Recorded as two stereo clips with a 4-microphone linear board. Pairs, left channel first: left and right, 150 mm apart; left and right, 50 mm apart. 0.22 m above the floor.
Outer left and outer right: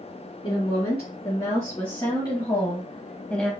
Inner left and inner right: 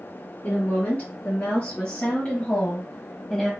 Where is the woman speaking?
45° left (ahead or behind), 2 m; by 3.5 s 5° left (ahead or behind), 1.0 m.